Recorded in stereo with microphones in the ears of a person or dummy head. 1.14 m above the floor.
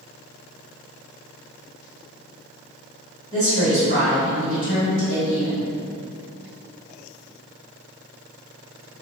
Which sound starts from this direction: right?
A woman speaking, at 3.3 s.